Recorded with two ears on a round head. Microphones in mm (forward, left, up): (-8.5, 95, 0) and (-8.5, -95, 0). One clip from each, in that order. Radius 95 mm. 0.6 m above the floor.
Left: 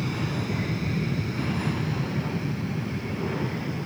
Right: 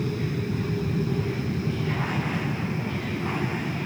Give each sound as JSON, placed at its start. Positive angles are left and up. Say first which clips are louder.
{"t": 0.0, "sound": "an aircraft", "louder": "even", "side_deg": 25}